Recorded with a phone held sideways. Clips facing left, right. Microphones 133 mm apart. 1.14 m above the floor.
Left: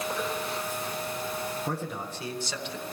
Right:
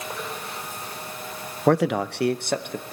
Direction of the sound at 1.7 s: 75° right (ahead or behind).